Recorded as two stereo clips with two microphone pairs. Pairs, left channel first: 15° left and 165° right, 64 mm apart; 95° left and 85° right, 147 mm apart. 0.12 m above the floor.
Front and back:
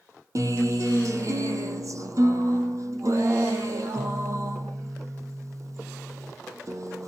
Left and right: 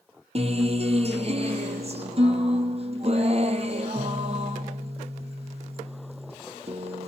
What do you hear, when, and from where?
0.3 s a guitar: 130° right, 1.6 m